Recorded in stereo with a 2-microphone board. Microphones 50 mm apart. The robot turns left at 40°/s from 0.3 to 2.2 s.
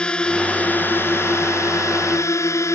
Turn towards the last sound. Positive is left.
turn(degrees=85)